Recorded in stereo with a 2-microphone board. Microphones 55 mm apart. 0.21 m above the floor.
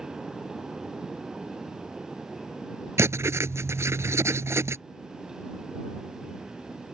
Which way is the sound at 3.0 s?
60° right (ahead or behind).